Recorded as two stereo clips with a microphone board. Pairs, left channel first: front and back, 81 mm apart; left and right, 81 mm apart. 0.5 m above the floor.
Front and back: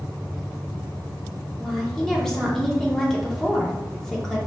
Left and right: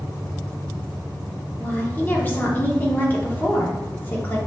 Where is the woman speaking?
75° left, 0.9 m.